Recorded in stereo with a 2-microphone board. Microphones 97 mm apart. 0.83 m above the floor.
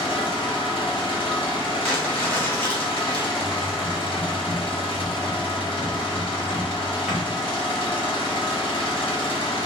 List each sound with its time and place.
0.0 s an engine running: 60° left (ahead or behind), 1.0 m
1.8 s crumpling: 15° left (ahead or behind), 1.4 m
3.4 s typing on a keyboard: centre (ahead or behind), 1.4 m